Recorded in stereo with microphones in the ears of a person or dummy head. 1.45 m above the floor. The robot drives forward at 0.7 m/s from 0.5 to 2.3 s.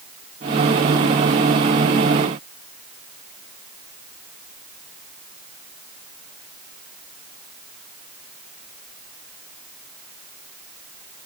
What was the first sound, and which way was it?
Only background noise.